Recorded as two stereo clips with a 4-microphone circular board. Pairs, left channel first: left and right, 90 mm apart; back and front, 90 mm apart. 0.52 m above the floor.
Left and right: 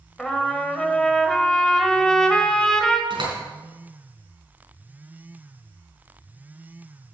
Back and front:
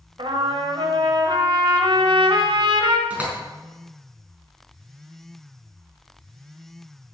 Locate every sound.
0.2 s a trumpet: 10° left, 1.5 m
3.1 s a door slam: 75° right, 4.5 m